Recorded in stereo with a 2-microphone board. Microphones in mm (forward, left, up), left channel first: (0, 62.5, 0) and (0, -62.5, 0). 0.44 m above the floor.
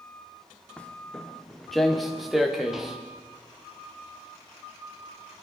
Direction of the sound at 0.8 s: 10° left (ahead or behind).